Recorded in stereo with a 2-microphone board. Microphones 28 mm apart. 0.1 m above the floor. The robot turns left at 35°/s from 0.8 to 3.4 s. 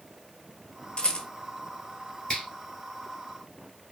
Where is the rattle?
40° left (ahead or behind), 0.8 m; by 1.3 s 45° left (ahead or behind), 0.8 m.